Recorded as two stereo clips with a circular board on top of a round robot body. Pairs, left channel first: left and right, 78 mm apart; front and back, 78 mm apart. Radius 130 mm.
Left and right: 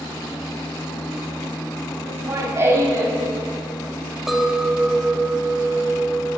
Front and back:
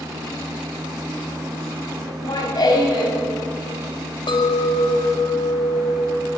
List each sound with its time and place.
2.1 s laughter: 35° right, 3 m
4.3 s a clink: 5° right, 1.5 m